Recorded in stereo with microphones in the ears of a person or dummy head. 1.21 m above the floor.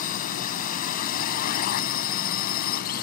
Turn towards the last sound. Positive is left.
turn(degrees=45)  # may be behind; listen again after turning